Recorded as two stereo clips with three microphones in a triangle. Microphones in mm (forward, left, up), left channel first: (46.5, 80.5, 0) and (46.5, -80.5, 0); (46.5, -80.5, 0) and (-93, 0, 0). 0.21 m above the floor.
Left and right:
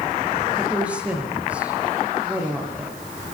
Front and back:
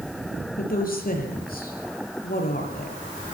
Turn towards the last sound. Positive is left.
turn(degrees=-5)